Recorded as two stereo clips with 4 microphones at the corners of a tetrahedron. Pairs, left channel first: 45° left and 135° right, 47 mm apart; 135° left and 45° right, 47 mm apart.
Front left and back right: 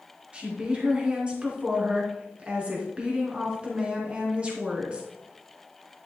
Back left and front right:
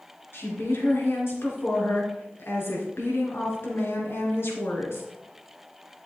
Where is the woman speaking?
160° left, 3 m.